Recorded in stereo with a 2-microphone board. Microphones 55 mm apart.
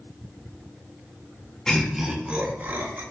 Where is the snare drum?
No snare drum in this recording.